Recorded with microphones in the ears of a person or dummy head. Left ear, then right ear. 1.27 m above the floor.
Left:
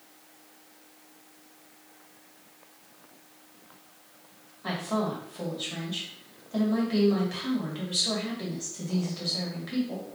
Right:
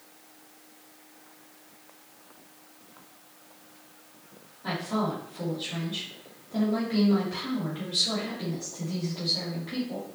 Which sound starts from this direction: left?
A woman speaking, at 4.6 s.